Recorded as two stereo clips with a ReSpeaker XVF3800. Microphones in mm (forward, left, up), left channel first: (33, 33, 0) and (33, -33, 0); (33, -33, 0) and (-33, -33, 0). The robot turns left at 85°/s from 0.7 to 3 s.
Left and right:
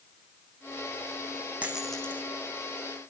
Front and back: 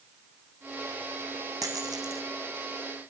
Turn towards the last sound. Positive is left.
turn(degrees=85)